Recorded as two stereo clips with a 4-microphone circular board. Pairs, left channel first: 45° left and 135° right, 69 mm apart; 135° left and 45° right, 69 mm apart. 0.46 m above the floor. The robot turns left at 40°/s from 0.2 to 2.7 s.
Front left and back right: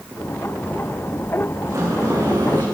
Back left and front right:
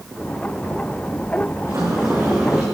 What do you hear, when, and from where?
1.7 s a sliding door: 85° right, 9.5 m; by 2.6 s 125° right, 9.5 m